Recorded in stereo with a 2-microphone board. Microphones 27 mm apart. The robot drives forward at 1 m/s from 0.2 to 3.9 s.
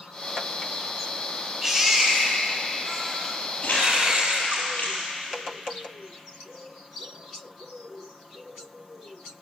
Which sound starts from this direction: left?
Crumpling, at 3.6 s.